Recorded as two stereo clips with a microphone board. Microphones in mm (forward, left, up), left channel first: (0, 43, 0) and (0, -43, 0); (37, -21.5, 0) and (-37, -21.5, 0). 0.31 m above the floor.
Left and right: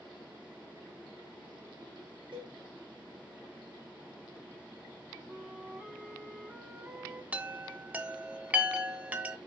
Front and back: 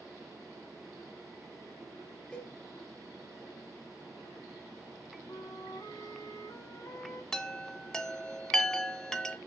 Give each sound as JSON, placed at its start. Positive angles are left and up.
{"t": 2.3, "sound": "a cowbell", "azimuth_deg": -75, "distance_m": 2.5}
{"t": 5.3, "sound": "a flute", "azimuth_deg": -15, "distance_m": 1.4}
{"t": 7.3, "sound": "a chime", "azimuth_deg": -65, "distance_m": 0.8}